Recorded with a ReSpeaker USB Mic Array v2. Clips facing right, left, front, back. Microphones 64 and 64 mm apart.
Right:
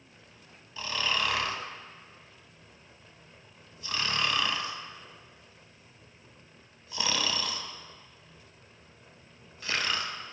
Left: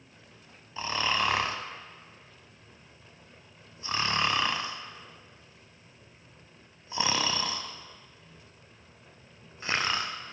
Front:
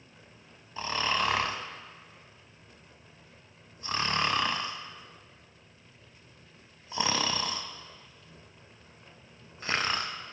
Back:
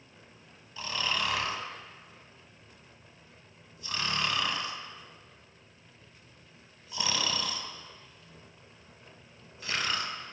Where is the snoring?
35° left, 0.5 m.